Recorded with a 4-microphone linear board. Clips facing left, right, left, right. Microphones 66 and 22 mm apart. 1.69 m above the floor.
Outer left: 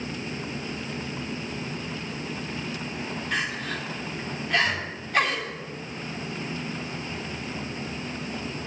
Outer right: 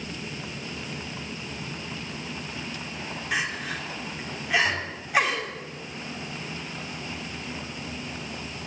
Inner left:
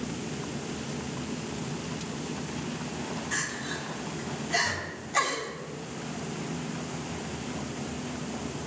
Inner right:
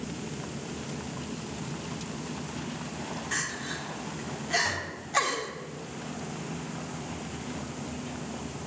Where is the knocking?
50° right (ahead or behind), 3.5 m.